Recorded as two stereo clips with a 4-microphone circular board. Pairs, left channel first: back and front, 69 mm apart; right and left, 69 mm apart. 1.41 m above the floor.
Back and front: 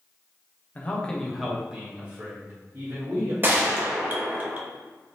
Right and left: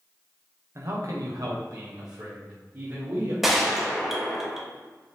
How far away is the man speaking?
About 0.8 m.